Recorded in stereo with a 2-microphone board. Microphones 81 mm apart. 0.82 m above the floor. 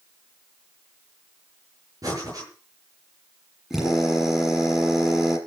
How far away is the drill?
About 8 m.